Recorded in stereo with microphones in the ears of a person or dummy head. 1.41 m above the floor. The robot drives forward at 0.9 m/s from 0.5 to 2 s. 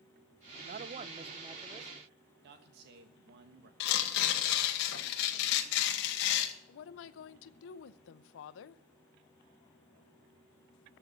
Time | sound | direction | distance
0.6 | a man speaking | 50° right (ahead or behind) | 0.6 m
2.4 | a man speaking | 60° right (ahead or behind) | 1.3 m
3.8 | tearing paper | 60° left (ahead or behind) | 1.9 m
6.7 | a woman speaking | 70° left (ahead or behind) | 0.8 m